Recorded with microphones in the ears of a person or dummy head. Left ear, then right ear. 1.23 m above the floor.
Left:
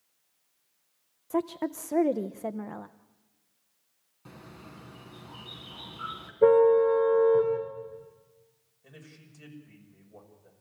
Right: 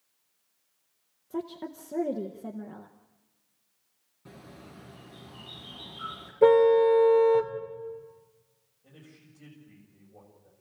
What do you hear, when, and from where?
1.3 s a woman speaking: 40° left (ahead or behind), 0.6 m
4.2 s a bird: 25° left (ahead or behind), 3 m
6.4 s a car horn: 30° right (ahead or behind), 2.5 m
8.8 s a man speaking: 65° left (ahead or behind), 6.5 m